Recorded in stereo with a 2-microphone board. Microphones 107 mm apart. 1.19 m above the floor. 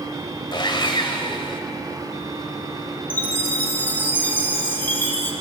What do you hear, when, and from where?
0.5 s sawing: 45° left (ahead or behind), 2.5 m
3.1 s a chime: 20° left (ahead or behind), 2.5 m